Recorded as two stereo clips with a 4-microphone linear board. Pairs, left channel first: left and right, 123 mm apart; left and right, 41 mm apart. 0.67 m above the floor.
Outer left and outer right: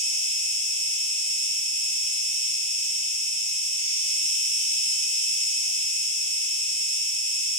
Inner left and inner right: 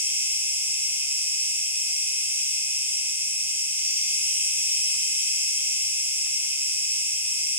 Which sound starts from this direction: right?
An insect, at 0.0 s.